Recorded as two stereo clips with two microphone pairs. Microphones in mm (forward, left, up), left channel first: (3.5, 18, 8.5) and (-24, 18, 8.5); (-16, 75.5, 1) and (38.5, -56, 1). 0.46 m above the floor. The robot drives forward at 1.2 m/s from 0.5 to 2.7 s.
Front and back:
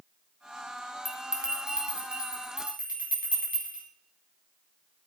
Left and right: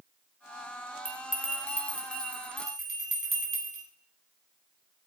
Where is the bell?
105° left, 1.5 m; by 3.9 s 150° left, 3 m.